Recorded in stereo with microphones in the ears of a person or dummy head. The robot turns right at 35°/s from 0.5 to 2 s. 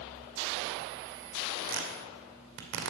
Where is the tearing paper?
55° right (ahead or behind), 2 m; by 2.9 s 65° right (ahead or behind), 2 m.